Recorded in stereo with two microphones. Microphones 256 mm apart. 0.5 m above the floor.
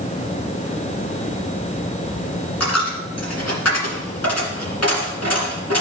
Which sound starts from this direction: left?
A dropped coin, at 2.6 s.